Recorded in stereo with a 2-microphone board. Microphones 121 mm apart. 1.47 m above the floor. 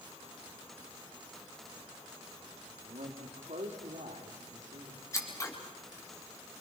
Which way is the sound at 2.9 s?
75° right (ahead or behind).